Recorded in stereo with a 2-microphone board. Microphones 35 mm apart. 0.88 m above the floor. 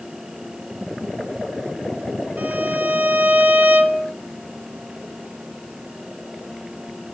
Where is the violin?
70° right (ahead or behind), 2.5 m.